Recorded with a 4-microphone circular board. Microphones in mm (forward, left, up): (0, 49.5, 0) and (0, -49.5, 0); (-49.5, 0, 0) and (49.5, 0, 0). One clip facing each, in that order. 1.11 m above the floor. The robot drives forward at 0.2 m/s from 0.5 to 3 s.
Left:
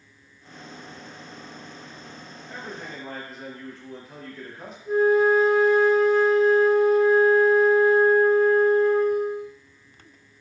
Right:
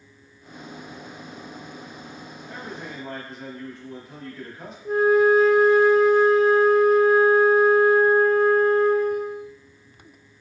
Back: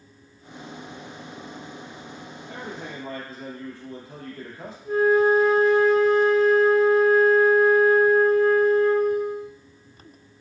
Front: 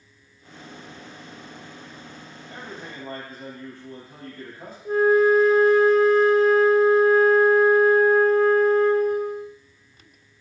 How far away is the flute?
About 0.5 m.